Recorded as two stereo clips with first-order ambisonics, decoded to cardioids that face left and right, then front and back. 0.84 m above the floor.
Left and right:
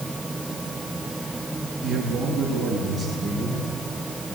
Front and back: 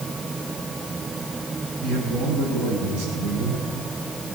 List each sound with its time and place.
1.8 s a man speaking: 175° right, 8 m; by 4.3 s 165° left, 10 m